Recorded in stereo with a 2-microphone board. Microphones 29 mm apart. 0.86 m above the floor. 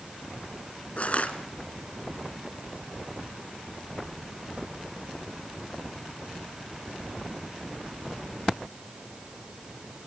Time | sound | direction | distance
1.0 | crushing | 50° left (ahead or behind) | 2 m